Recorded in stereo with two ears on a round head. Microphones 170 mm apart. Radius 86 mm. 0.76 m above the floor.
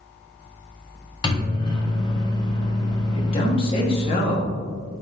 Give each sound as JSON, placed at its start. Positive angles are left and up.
{"t": 1.2, "sound": "a microwave", "side_deg": 25, "distance_m": 0.6}
{"t": 3.1, "sound": "a man speaking", "side_deg": 30, "distance_m": 0.9}